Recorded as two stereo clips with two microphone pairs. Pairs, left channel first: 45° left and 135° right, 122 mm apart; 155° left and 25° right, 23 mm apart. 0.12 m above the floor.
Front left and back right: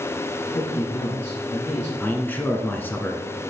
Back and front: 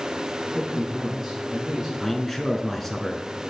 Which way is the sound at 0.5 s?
40° left.